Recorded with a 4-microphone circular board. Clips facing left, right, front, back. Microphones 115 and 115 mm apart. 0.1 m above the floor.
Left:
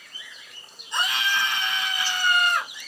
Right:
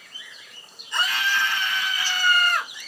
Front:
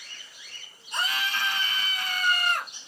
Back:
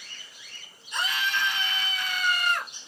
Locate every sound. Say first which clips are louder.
0.9 s a scream: right 1 dB, back 1 dB; 30° left, 1.7 m